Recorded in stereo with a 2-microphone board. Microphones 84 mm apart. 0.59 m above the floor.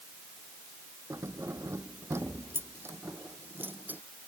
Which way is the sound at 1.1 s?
35° right (ahead or behind).